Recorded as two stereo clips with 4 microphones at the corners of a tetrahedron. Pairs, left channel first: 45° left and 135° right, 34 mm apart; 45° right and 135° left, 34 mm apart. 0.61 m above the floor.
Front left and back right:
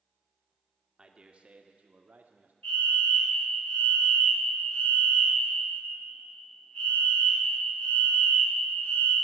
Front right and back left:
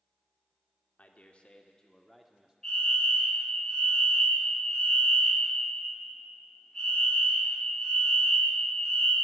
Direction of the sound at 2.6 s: 25° left.